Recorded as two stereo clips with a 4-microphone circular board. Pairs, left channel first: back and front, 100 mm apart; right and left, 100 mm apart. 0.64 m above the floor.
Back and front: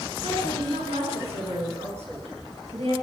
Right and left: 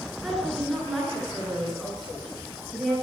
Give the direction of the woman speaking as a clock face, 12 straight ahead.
12 o'clock.